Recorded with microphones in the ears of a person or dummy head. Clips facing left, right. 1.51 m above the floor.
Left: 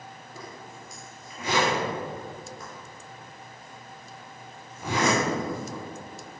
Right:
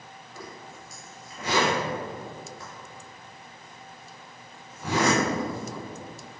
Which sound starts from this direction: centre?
A zipper, at 0.3 s.